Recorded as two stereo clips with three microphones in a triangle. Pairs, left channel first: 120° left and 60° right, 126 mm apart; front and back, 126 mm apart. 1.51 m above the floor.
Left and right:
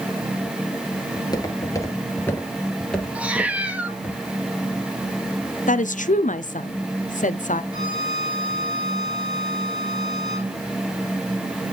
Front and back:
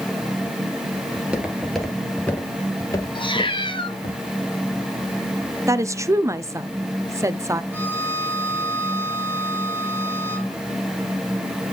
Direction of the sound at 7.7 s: 105° right.